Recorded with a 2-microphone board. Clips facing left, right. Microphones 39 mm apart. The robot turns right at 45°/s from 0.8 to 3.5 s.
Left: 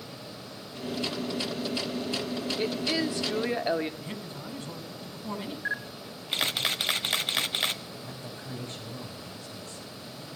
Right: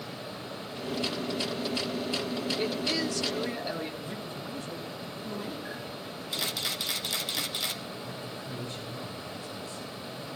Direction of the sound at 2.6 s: 5° left.